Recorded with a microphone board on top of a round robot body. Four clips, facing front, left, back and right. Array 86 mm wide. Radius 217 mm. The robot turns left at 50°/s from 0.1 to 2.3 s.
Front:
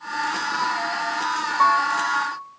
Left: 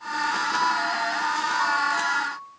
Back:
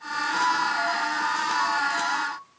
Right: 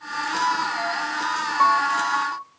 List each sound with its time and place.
1.6 s a piano: 40° right, 2.5 m; by 2.4 s 75° right, 2.5 m